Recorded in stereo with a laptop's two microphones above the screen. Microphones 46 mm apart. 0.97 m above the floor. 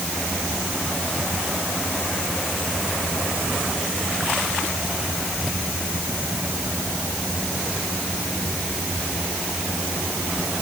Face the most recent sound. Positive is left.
No sound to turn to.